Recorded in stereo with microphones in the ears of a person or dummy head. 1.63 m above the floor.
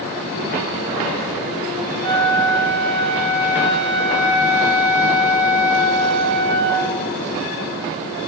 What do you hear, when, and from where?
2.0 s a flute: 70° right (ahead or behind), 2.5 m